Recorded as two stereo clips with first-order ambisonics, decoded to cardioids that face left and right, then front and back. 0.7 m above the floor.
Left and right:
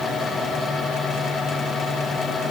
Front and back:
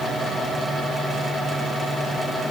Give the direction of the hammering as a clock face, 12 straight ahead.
I don't hear hammering.